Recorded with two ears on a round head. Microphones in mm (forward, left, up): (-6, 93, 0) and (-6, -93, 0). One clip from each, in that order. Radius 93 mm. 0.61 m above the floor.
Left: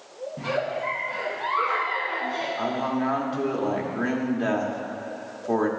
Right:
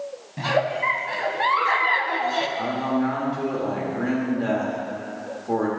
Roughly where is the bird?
No bird in this recording.